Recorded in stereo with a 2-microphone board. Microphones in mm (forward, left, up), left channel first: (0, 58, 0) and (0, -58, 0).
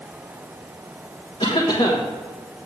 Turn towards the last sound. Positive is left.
turn(degrees=55)  # may be behind; listen again after turning